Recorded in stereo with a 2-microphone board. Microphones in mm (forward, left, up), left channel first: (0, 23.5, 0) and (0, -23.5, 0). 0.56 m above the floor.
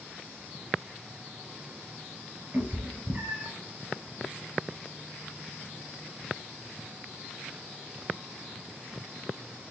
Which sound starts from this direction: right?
A cat meowing, at 2.5 s.